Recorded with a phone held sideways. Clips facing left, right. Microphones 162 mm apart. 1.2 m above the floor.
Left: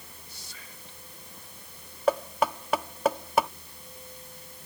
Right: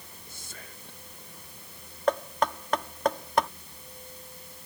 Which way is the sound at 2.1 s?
10° left (ahead or behind).